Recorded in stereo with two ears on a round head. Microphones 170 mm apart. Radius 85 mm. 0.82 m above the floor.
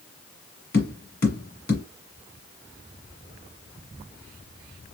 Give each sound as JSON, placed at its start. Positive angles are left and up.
{"t": 0.7, "sound": "tapping", "side_deg": 55, "distance_m": 1.6}